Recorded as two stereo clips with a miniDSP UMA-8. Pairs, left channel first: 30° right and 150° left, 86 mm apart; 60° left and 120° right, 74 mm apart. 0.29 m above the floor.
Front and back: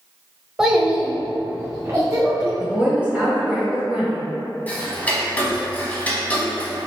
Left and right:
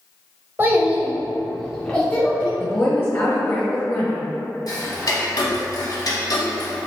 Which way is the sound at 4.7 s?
40° left.